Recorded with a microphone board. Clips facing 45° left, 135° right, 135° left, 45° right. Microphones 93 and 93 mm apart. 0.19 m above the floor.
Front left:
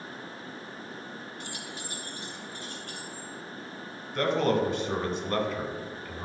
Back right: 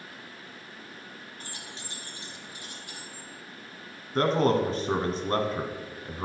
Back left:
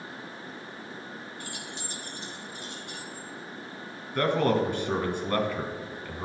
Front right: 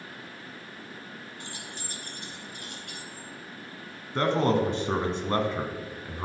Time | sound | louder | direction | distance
1.4 | keys jangling | front left 4 dB, back left 2 dB | 105° right | 1.1 m
4.2 | a man speaking | back right 2 dB, even | 100° right | 1.6 m